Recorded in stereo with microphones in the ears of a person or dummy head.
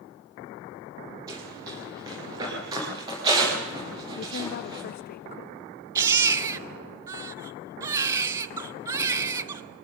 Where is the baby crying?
15° right (ahead or behind), 0.9 m.